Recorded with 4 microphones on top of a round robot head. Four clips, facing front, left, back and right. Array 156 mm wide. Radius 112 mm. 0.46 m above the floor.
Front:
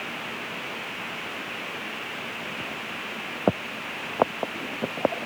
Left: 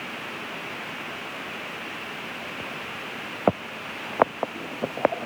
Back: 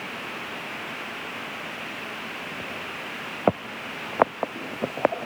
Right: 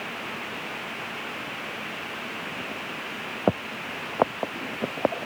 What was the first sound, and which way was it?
Only background noise.